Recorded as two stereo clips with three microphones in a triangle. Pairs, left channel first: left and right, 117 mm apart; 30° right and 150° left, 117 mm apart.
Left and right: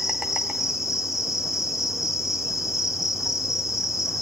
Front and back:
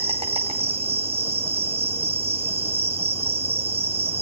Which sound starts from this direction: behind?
An insect, at 0.0 s.